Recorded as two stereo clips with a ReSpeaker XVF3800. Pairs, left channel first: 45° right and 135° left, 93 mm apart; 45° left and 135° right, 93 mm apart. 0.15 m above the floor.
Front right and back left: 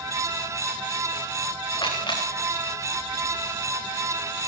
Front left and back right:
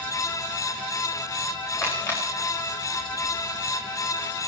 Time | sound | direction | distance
1.7 | a camera shutter | 15° right | 8.5 m